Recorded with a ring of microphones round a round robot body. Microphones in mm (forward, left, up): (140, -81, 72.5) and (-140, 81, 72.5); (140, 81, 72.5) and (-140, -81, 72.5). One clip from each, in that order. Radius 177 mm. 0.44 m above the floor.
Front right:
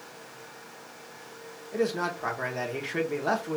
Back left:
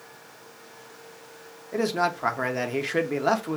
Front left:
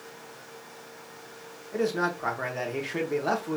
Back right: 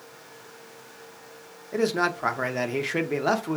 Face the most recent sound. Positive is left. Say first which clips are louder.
# back left 4 dB, back right 3 dB
turn(degrees=180)